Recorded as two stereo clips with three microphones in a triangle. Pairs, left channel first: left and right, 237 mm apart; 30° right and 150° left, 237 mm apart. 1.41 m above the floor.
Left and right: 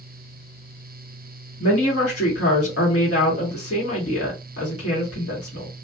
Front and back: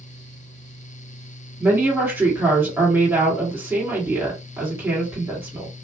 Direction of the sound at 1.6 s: 70° left.